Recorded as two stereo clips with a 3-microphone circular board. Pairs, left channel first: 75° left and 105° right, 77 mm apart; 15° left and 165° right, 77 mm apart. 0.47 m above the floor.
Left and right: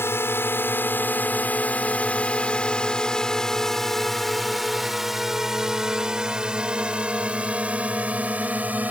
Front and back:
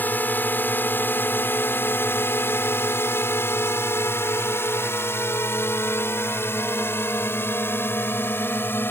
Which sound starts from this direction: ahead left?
A drone, at 0.0 s.